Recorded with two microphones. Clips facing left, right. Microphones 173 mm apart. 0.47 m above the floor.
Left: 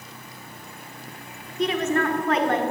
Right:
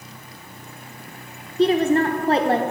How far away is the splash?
No splash in this recording.